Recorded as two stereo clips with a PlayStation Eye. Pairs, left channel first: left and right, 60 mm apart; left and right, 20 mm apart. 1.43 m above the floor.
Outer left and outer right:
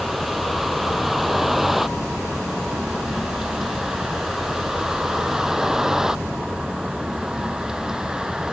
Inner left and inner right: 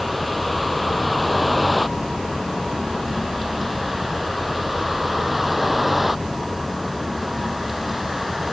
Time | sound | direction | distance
0.0 | a vehicle | centre (ahead or behind) | ?